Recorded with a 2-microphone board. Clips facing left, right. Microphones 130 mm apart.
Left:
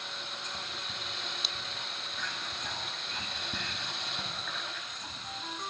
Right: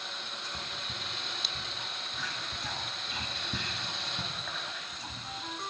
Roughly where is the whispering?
Centre.